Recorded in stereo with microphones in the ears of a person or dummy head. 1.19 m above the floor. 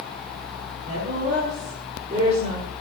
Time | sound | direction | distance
0.8 | a woman speaking | 40° right (ahead or behind) | 4.5 m